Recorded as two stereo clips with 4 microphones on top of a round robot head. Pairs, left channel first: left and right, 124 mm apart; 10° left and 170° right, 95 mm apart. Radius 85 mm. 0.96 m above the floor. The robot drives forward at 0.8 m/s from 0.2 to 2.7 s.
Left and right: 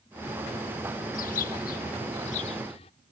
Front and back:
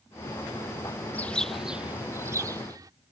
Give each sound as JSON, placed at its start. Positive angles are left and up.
{"t": 1.1, "sound": "a bird", "azimuth_deg": 80}